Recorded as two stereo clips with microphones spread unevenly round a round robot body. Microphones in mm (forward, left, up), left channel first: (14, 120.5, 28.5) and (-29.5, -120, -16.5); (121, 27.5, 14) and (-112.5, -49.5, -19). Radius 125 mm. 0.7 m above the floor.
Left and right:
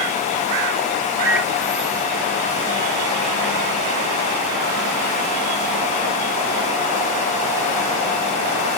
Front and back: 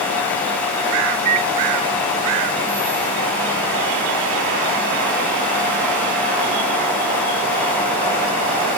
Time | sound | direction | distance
1.2 | a microwave | 175° left | ?